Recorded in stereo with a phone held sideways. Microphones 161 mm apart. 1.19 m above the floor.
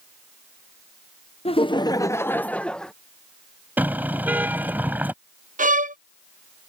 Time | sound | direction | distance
1.4 | laughter | 40° left (ahead or behind) | ?
3.8 | a car horn | 10° right (ahead or behind) | ?
5.6 | a violin | 55° right (ahead or behind) | ?